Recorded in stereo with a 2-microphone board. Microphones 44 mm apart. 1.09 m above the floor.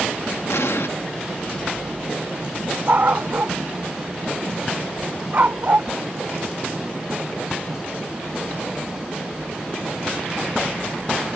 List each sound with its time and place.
0.5 s an explosion: 80° left
2.9 s a dog barking: 45° right (ahead or behind)